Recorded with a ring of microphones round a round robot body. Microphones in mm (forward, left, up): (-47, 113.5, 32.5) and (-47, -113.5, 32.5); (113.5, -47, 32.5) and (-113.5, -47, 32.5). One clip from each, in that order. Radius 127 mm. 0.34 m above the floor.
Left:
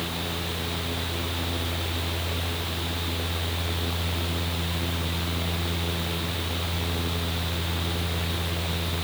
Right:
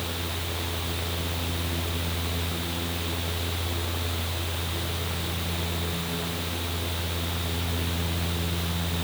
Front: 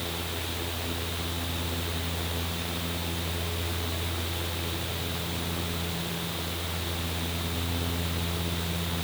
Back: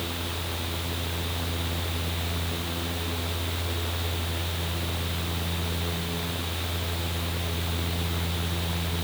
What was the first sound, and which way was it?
Only background noise.